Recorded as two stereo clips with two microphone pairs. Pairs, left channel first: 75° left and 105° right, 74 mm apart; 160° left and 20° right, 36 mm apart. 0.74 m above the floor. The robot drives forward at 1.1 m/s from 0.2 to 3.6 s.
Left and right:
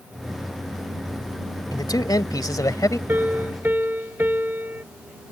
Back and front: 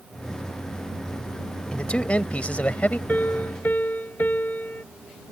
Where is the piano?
165° right; by 4.8 s 170° right.